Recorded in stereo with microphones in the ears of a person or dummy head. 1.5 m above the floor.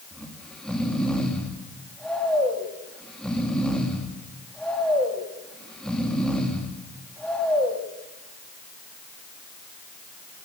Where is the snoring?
5° right (ahead or behind), 2 m.